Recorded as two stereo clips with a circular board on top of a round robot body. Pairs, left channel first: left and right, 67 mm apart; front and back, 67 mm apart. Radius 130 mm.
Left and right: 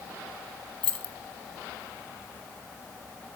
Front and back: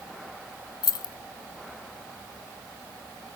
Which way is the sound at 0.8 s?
15° left.